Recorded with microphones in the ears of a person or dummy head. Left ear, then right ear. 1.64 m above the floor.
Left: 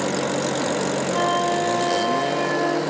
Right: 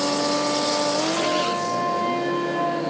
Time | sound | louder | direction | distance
1.1 | a flute | left 2 dB | 80° left | 5 m